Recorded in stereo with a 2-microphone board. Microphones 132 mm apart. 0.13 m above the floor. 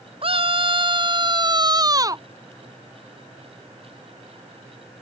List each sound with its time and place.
0.2 s a scream: 45° right (ahead or behind); by 2.2 s 25° right (ahead or behind)